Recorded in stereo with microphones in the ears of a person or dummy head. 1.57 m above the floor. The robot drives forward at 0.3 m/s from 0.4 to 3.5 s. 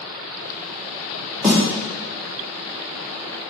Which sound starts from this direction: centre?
A snare drum, at 1.4 s.